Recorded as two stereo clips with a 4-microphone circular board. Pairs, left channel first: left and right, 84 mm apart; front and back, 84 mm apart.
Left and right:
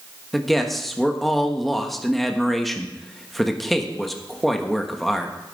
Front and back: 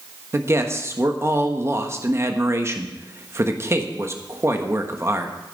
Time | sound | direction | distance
0.3 | a man speaking | 175° left | 1.2 m